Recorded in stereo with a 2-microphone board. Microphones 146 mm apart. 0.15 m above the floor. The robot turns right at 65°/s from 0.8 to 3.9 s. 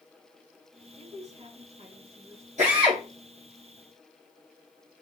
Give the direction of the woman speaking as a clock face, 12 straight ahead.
4 o'clock.